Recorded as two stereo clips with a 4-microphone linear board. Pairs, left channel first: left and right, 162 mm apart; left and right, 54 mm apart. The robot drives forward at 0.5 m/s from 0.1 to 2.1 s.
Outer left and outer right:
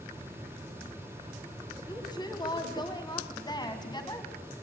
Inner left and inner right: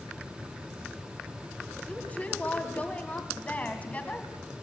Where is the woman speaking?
25° left (ahead or behind), 2.5 m.